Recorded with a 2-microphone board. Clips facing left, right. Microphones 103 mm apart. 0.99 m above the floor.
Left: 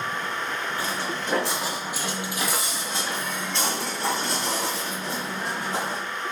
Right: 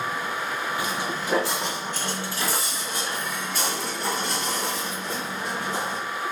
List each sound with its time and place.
0.8 s footsteps: 15° right (ahead or behind), 1.1 m; by 6.0 s 30° left (ahead or behind), 3.5 m